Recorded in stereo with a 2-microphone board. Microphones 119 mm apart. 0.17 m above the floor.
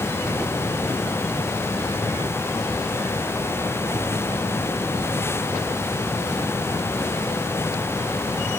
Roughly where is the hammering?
I don't hear hammering.